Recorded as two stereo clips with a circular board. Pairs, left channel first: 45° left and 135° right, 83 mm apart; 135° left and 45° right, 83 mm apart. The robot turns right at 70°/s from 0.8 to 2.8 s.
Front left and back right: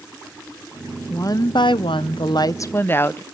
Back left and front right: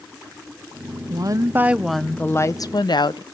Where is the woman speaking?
10° right, 0.6 m; by 3.2 s 105° left, 0.6 m.